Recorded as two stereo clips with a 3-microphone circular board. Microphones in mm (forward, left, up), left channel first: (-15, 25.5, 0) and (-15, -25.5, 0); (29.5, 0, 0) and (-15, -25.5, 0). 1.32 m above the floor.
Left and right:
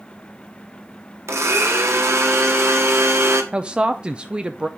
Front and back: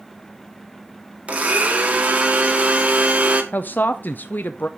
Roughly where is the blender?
Right.